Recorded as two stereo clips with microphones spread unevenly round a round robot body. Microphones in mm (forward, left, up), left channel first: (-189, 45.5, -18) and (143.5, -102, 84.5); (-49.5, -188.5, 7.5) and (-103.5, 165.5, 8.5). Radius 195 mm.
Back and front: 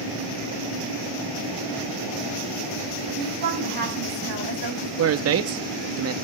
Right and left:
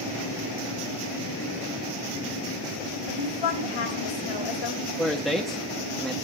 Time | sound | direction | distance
3.1 | a woman speaking | 65° right | 3 m
5.0 | a man speaking | 5° left | 0.6 m